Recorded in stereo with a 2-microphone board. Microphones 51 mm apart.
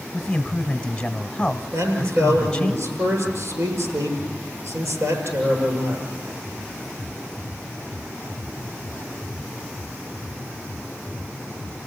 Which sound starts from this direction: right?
A man speaking, at 1.7 s.